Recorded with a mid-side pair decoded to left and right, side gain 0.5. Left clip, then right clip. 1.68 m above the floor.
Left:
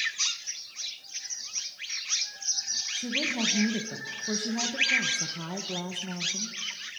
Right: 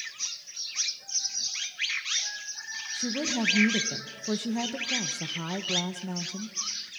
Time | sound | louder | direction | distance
2.9 | a woman speaking | right 2 dB | 20° right | 1.9 m